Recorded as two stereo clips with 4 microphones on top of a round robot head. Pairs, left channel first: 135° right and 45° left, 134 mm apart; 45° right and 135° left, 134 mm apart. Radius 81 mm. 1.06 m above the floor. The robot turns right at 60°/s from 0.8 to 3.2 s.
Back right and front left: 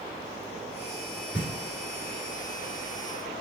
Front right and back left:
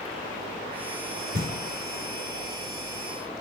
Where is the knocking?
145° left, 2.5 m; by 1.5 s 155° left, 2.5 m.